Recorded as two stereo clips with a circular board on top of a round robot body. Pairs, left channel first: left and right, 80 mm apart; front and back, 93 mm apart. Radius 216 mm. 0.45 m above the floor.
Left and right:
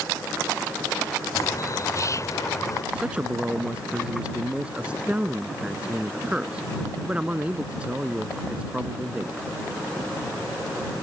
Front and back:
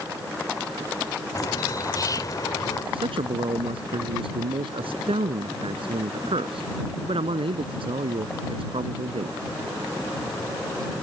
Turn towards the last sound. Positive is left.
turn(degrees=-165)